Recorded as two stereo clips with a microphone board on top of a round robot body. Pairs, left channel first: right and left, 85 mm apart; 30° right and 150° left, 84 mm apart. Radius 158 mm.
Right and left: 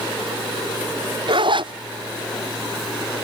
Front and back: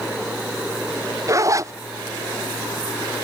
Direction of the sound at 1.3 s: 100° left.